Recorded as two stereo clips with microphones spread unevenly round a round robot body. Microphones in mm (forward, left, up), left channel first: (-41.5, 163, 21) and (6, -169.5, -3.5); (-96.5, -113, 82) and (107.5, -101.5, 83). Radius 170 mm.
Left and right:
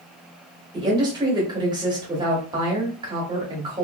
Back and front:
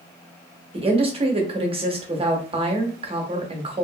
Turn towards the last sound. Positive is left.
turn(degrees=-25)